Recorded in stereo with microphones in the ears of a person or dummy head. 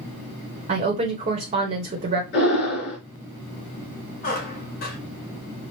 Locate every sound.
0.7 s a woman speaking: 30° right (ahead or behind), 1.3 m
2.3 s breathing: 50° left (ahead or behind), 3 m
4.2 s a squeak: 45° left (ahead or behind), 1.9 m